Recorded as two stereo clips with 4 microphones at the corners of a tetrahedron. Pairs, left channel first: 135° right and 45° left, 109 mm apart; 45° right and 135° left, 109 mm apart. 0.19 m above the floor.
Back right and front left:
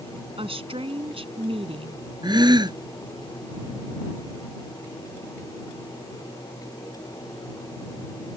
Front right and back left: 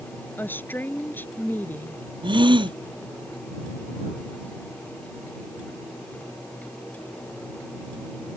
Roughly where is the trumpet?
I don't hear a trumpet.